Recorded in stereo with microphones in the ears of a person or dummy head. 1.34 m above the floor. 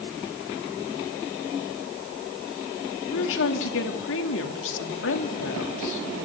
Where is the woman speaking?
75° left (ahead or behind), 2.5 m.